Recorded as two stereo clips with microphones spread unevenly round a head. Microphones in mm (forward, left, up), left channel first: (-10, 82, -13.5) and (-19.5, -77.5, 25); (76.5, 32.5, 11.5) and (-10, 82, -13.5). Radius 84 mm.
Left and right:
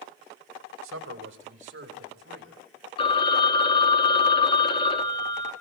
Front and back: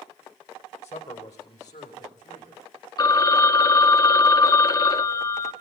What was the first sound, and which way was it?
A man speaking, 85° right.